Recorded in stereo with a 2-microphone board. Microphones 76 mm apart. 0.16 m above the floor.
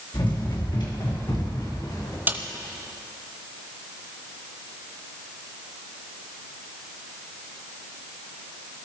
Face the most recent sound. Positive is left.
turn(degrees=-25)  # may be behind; listen again after turning